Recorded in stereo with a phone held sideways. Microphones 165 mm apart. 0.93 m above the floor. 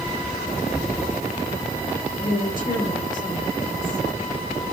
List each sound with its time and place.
2.2 s a woman speaking: 60° left (ahead or behind), 4.5 m